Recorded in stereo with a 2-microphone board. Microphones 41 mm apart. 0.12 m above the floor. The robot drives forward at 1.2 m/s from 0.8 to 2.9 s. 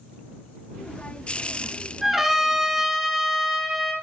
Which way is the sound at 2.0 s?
5° right (ahead or behind).